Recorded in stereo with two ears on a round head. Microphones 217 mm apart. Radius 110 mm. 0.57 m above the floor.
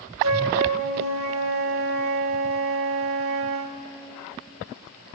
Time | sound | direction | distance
0.2 | a flute | 55° right (ahead or behind) | 1.2 m